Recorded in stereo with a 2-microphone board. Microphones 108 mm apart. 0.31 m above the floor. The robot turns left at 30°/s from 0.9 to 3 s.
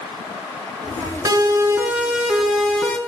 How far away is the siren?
About 6 m.